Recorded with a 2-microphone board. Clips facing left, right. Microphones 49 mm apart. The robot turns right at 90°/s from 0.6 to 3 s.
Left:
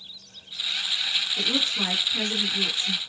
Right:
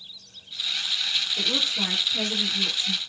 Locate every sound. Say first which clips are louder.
1.4 s a woman speaking: left 1 dB; 10° left (ahead or behind), 1.3 m; by 3.0 s 5° left (ahead or behind), 1.3 m